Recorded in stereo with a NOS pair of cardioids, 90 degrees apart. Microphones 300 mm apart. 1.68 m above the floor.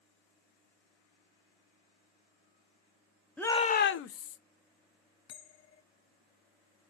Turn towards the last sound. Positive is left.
turn(degrees=60)